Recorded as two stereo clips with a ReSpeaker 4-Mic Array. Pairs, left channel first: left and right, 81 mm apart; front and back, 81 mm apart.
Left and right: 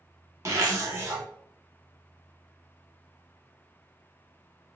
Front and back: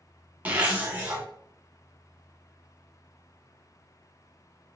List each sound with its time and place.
0.5 s a zipper: 120° right, 0.9 m